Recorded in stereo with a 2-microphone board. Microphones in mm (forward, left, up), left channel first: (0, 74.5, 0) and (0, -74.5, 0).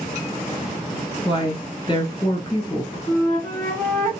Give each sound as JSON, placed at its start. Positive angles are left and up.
{"t": 1.2, "sound": "a woman speaking", "side_deg": 35, "distance_m": 1.2}
{"t": 3.1, "sound": "a flute", "side_deg": 15, "distance_m": 2.0}